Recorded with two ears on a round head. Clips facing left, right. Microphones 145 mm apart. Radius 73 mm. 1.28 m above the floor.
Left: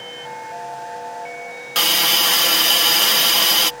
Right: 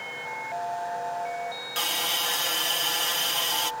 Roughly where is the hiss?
Left.